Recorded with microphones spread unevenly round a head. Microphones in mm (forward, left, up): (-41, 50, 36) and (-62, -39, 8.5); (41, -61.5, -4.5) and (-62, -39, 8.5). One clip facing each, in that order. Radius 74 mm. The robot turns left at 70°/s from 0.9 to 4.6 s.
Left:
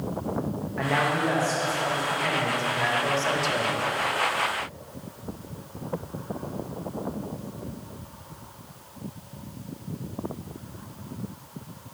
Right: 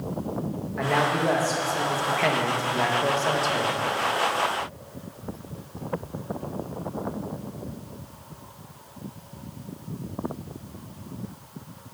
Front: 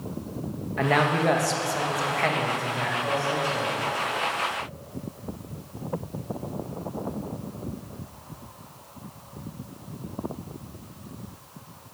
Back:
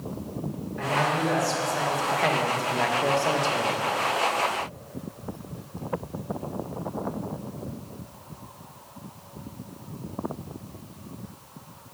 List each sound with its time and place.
0.8 s a man speaking: 15° right, 1.2 m; by 3.8 s 140° left, 1.2 m